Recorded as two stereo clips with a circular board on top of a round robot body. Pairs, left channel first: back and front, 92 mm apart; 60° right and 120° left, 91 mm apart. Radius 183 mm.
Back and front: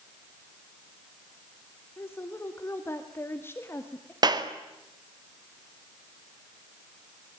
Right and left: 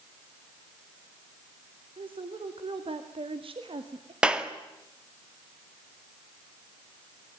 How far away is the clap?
About 2 m.